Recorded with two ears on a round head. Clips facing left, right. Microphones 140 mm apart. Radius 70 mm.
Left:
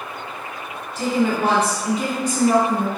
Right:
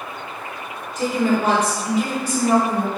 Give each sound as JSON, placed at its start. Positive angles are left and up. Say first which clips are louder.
{"t": 0.9, "sound": "a woman speaking", "louder": "right 1 dB", "side_deg": 25, "distance_m": 1.3}